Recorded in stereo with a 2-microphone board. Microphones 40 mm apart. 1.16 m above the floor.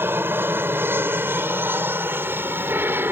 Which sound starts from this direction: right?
An aircraft, at 0.0 s.